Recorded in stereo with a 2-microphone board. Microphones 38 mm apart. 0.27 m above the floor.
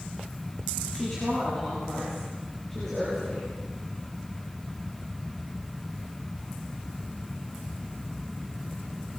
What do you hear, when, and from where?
0.9 s a woman speaking: 5° left (ahead or behind), 8.5 m; by 3.5 s 10° left (ahead or behind), 9.5 m